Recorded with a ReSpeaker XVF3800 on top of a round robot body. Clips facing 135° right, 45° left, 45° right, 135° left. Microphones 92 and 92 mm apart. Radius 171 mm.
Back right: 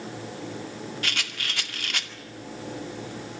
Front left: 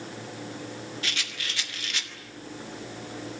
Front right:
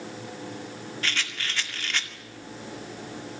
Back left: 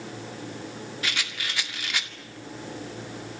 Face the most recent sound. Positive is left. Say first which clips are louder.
# back right 3 dB, front right 1 dB
turn(degrees=-145)